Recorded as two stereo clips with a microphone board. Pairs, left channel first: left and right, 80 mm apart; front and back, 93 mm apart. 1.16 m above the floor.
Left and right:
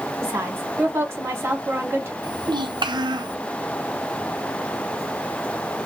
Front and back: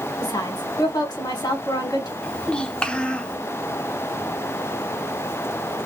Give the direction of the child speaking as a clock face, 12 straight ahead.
3 o'clock.